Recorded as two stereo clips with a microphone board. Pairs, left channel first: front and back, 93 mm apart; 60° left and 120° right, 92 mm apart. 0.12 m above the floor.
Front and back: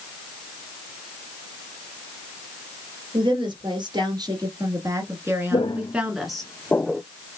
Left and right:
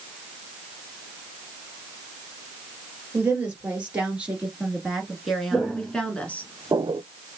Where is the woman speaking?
170° left, 2.5 m; by 6.5 s 75° left, 1.5 m.